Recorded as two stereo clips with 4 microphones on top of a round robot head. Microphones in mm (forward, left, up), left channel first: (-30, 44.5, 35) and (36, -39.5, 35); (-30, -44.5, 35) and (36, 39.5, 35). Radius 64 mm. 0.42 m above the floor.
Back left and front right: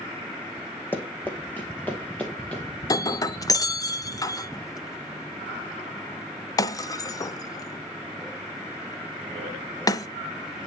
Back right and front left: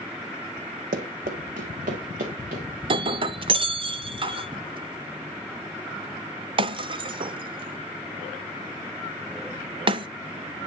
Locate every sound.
0.9 s running footsteps: 55° left, 1.3 m; by 2.6 s 50° left, 2.5 m
2.8 s breaking glass: 80° left, 0.6 m